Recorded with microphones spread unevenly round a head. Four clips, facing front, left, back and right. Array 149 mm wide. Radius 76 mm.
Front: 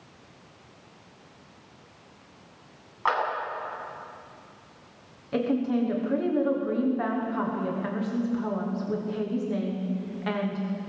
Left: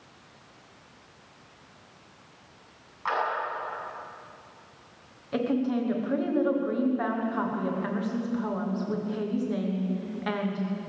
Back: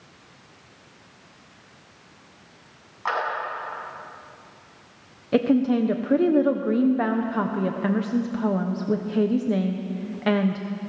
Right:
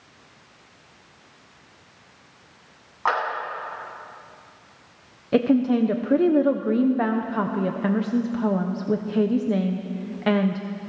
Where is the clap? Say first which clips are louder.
Right 6 dB, front 1 dB; 90° right, 9.5 m.